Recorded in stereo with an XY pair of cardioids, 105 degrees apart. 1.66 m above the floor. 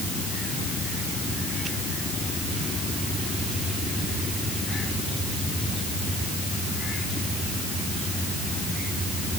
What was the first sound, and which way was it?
Only background noise.